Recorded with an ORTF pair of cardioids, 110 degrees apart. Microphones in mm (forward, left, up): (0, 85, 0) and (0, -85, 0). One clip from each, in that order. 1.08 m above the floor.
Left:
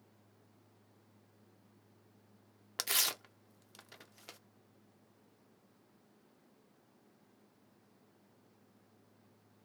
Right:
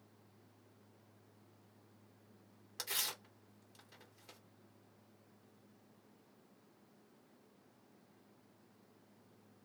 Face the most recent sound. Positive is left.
turn(degrees=55)